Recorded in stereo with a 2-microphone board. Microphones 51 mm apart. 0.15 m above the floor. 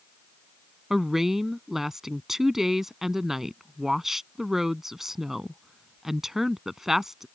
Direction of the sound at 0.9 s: 5° right (ahead or behind).